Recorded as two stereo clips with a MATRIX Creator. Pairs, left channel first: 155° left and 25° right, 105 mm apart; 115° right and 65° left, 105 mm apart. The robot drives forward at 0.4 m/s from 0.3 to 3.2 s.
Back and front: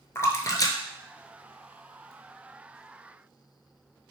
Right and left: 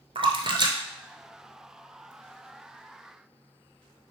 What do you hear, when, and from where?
0.1 s a splash: 95° left, 0.6 m; by 2.1 s 145° left, 1.0 m